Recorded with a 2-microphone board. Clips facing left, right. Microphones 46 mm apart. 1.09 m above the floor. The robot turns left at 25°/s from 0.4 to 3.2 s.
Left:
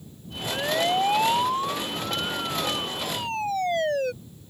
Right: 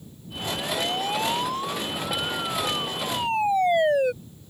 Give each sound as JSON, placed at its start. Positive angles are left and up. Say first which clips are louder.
{"t": 0.5, "sound": "a siren", "louder": "left 3 dB", "side_deg": 35}